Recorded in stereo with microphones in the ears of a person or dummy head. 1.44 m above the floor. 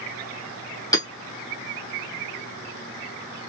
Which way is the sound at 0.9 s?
25° left (ahead or behind).